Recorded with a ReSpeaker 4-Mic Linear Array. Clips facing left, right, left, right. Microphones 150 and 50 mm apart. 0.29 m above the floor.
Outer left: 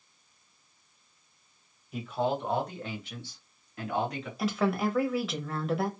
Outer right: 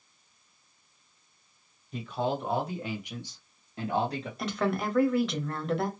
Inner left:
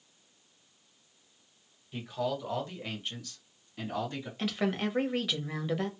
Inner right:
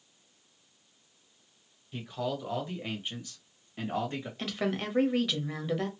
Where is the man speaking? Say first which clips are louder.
Outer left 1 dB, inner left 1 dB; 5° left (ahead or behind), 1.6 m; by 4.3 s 35° right (ahead or behind), 1.7 m.